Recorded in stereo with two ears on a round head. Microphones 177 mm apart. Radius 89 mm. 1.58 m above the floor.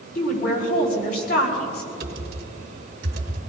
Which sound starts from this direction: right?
Typing on a keyboard, at 2.0 s.